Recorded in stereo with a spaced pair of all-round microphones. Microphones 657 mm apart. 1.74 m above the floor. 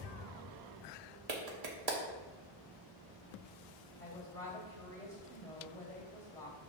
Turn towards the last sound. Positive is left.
turn(degrees=5)  # may be behind; listen again after turning